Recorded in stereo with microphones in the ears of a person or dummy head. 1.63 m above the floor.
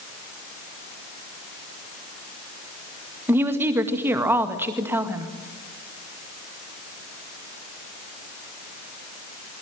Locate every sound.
3.3 s a woman speaking: 10° right (ahead or behind), 2 m